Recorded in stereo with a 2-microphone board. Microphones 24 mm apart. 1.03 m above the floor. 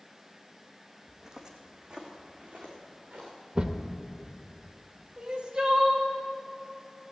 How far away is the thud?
About 0.9 m.